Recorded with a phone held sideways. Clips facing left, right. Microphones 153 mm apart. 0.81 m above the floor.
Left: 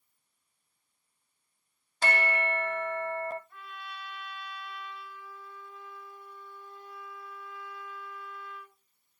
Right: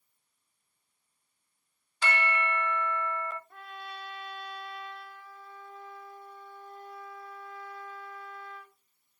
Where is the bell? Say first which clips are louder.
Left 1 dB; 40° left (ahead or behind), 0.8 m.